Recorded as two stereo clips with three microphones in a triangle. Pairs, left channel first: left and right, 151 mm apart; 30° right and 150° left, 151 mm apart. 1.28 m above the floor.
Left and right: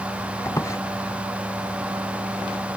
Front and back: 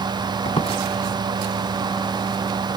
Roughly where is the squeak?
Ahead.